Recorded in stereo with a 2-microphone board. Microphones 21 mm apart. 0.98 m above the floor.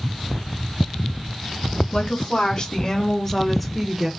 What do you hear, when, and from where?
1.9 s a woman speaking: 50° left (ahead or behind), 1.3 m; by 4.1 s 15° right (ahead or behind), 0.8 m